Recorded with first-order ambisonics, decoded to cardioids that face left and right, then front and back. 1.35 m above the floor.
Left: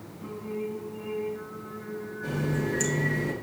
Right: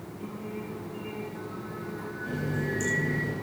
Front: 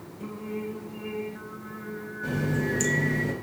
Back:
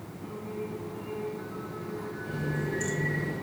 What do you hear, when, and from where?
0.2 s singing: 10° right, 3.5 m
2.2 s a running tap: 25° left, 5.5 m